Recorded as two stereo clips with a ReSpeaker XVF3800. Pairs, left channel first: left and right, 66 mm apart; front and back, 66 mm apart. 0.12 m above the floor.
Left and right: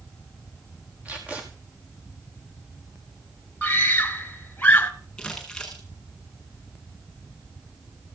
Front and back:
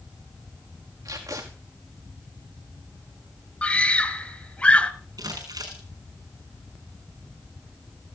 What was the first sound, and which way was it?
Tape being pulled, 155° right.